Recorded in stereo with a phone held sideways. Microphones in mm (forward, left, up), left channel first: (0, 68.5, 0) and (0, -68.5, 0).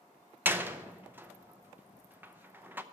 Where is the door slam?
15° right (ahead or behind), 0.6 m.